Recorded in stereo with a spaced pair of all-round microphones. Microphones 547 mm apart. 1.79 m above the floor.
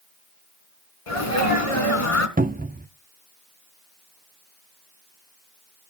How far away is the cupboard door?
About 0.5 m.